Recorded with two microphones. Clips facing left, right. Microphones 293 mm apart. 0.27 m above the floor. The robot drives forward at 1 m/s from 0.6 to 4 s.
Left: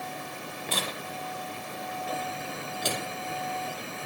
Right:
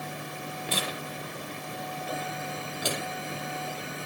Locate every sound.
0.7 s tearing paper: 10° right (ahead or behind), 6 m; by 4.1 s 5° right (ahead or behind), 9 m